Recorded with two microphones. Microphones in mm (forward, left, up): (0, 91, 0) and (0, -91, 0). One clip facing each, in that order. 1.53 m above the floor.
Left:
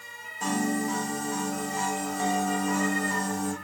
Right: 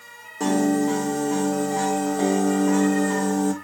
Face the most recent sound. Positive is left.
turn(degrees=-75)  # may be behind; listen again after turning